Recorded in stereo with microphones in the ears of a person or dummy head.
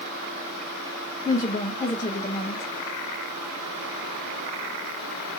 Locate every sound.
1.2 s a woman speaking: 20° left (ahead or behind), 0.7 m